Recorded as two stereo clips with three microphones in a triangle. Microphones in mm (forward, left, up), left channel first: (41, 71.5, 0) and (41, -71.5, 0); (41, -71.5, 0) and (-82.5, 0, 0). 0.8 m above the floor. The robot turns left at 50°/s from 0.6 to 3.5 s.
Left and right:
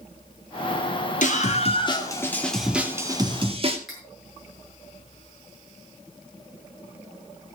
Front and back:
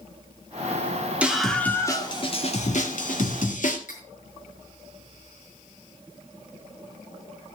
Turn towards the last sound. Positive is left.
turn(degrees=0)